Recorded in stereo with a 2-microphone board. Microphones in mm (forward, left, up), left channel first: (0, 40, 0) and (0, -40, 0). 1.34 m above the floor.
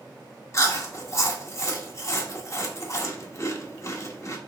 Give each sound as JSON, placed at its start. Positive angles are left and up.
{"t": 0.5, "sound": "chewing", "side_deg": 40, "distance_m": 0.9}